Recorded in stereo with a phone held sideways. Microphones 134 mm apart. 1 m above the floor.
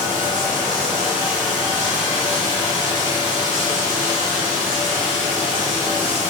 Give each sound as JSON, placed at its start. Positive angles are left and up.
{"t": 0.0, "sound": "running water", "side_deg": -75, "distance_m": 1.3}